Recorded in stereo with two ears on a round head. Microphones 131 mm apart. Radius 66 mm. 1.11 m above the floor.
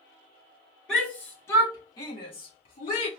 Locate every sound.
0.9 s a shout: 5° left (ahead or behind), 1.7 m; by 3.1 s 45° left (ahead or behind), 2.5 m